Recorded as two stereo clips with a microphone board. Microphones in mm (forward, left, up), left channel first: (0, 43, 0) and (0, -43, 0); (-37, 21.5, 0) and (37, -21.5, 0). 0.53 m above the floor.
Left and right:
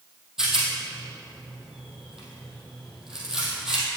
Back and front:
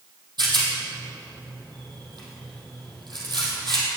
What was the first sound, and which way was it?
A rattle, 5° right.